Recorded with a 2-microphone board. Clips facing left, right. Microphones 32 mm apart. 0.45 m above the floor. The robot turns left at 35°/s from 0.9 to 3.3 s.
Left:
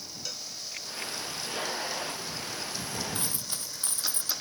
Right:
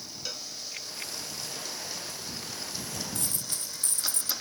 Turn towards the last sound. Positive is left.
turn(degrees=30)  # may be behind; listen again after turning